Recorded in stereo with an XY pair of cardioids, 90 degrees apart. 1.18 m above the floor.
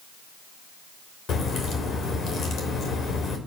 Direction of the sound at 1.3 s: 65° left.